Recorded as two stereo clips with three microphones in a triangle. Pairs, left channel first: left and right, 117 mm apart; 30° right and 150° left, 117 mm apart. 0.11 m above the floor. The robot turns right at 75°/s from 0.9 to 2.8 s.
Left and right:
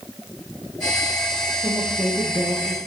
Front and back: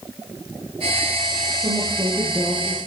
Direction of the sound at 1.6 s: 175° left.